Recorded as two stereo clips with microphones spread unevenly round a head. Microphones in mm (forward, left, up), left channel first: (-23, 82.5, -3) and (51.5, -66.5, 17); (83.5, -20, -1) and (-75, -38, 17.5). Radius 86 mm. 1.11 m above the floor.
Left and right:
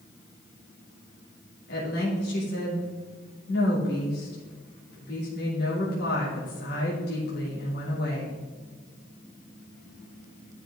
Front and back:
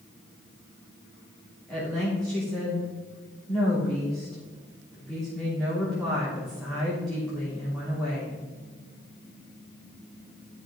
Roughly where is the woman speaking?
Left.